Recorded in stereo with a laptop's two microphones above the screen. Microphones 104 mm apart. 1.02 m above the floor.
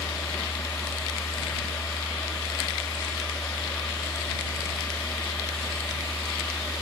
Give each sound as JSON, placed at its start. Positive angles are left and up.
{"t": 0.0, "sound": "a machine running", "side_deg": 20}